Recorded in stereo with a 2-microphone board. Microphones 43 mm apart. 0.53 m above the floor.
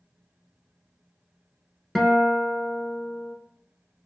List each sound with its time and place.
1.9 s a guitar: 10° left (ahead or behind), 0.9 m